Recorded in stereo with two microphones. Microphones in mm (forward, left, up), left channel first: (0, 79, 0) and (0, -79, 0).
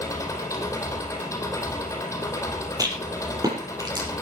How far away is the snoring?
I don't hear snoring.